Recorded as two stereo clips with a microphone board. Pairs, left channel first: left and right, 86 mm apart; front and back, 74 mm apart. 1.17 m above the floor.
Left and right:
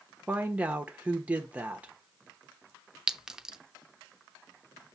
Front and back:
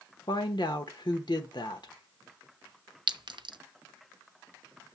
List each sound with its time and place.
0.3 s a woman speaking: 15° right, 1.2 m
3.1 s a clink: 170° right, 0.6 m